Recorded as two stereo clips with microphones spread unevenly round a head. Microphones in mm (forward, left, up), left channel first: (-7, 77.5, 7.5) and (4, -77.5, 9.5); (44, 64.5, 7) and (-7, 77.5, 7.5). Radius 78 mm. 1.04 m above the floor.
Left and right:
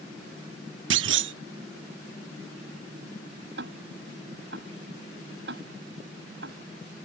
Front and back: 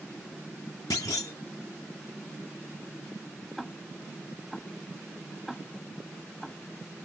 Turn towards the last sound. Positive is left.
turn(degrees=-105)